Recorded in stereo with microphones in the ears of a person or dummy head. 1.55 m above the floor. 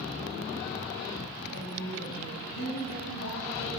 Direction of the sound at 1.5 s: 75° left (ahead or behind).